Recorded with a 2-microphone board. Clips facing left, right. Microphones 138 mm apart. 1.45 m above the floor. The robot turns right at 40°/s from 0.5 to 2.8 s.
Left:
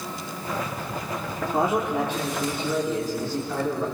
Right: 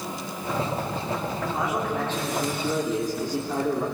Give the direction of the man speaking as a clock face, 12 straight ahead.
7 o'clock.